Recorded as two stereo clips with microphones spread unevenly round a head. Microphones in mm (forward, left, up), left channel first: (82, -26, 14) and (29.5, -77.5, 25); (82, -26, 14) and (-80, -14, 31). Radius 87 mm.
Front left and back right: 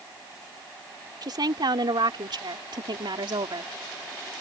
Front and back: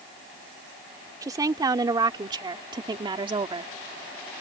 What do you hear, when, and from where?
1.2 s a woman speaking: 115° right; by 3.7 s 125° right